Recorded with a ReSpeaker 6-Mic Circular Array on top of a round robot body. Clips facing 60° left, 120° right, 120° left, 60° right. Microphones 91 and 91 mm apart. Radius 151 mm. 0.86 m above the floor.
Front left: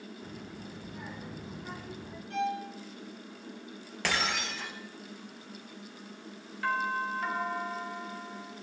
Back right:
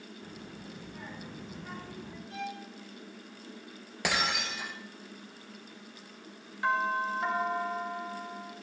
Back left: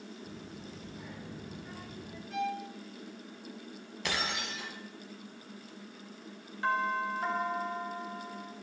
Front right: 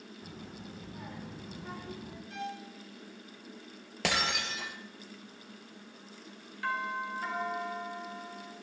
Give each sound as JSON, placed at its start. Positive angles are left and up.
{"t": 0.2, "sound": "a child speaking", "azimuth_deg": -25, "distance_m": 5.0}
{"t": 2.3, "sound": "a violin", "azimuth_deg": 35, "distance_m": 4.0}
{"t": 4.0, "sound": "breaking glass", "azimuth_deg": -45, "distance_m": 3.0}
{"t": 6.6, "sound": "a doorbell", "azimuth_deg": 175, "distance_m": 3.0}